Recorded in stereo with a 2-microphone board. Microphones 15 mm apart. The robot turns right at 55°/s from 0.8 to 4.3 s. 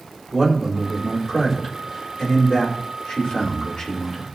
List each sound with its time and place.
0.3 s a man speaking: 30° right, 5 m; by 4.2 s 160° left, 5 m